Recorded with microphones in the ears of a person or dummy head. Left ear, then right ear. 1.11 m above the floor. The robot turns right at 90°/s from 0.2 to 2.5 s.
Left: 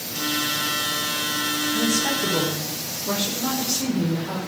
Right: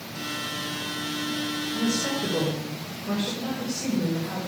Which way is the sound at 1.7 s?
20° right.